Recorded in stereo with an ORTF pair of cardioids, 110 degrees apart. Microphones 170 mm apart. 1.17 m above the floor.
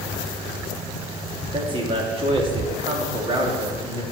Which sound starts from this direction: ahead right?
A man speaking, at 1.5 s.